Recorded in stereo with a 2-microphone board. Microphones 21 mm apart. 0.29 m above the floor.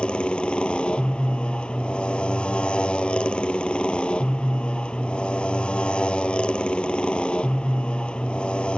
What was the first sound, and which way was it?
A motorcycle, 55° left (ahead or behind).